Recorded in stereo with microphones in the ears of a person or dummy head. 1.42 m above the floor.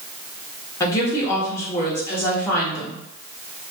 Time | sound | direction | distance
0.8 | a woman speaking | 20° left (ahead or behind) | 0.7 m